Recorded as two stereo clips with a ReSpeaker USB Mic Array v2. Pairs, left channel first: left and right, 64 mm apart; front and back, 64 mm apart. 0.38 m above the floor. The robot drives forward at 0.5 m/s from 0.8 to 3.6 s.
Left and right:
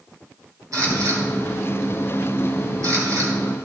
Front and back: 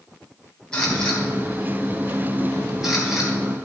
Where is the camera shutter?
75° right, 3.5 m; by 3.3 s 100° right, 3.5 m.